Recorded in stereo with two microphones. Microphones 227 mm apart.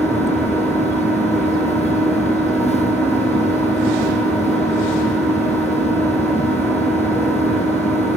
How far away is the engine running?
About 9 m.